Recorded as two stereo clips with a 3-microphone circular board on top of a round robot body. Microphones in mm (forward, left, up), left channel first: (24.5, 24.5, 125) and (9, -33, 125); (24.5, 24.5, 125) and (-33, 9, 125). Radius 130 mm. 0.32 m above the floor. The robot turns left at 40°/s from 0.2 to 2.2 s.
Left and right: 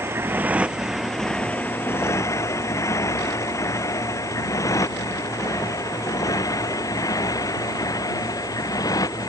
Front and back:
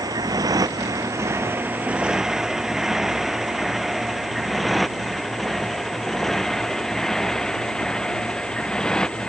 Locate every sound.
0.0 s a motorcycle: 155° right; by 9.3 s 95° left